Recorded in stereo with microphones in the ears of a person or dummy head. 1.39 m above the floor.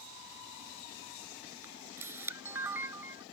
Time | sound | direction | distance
1.6 | a camera shutter | 15° right (ahead or behind) | ?